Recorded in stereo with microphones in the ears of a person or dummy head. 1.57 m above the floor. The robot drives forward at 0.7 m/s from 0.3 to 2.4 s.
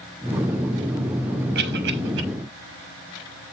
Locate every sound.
1.6 s a cough: 55° right (ahead or behind), 1.4 m; by 2.2 s 70° right (ahead or behind), 1.2 m